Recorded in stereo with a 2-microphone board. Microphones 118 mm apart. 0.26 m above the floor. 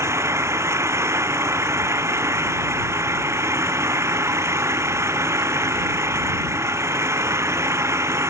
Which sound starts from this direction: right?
An engine running, at 0.0 s.